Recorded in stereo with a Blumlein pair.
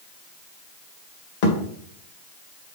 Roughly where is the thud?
Ahead left.